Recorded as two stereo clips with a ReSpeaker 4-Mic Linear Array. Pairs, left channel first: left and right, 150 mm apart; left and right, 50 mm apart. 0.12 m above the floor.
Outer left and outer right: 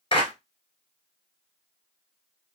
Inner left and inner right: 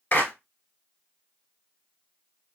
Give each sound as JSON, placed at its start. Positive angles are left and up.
{"t": 0.1, "sound": "a clap", "side_deg": 35, "distance_m": 1.1}